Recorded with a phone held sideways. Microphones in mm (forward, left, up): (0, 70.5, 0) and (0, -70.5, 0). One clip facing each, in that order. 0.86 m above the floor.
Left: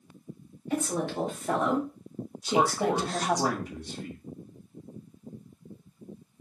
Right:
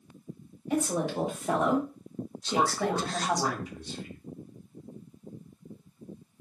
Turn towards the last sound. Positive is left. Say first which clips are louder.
# left 3 dB
turn(degrees=55)  # may be behind; listen again after turning